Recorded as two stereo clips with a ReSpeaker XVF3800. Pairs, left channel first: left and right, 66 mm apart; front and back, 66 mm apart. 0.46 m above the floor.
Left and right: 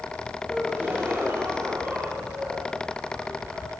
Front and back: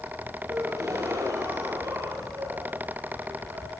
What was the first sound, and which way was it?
A gasp, 150° right.